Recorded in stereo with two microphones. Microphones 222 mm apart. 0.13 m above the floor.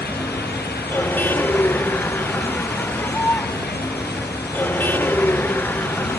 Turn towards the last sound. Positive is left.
turn(degrees=10)  # may be behind; listen again after turning